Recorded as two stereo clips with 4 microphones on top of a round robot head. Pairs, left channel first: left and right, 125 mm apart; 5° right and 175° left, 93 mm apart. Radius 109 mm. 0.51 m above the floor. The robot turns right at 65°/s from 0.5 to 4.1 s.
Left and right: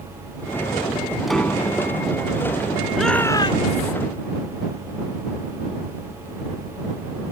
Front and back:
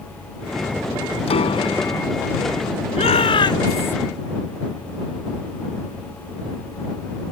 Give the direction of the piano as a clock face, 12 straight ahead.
12 o'clock.